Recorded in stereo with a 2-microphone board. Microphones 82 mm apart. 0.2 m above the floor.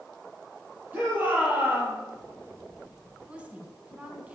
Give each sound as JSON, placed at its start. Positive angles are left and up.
{"t": 0.9, "sound": "a shout", "side_deg": -25, "distance_m": 5.5}
{"t": 3.3, "sound": "a woman speaking", "side_deg": -15, "distance_m": 1.9}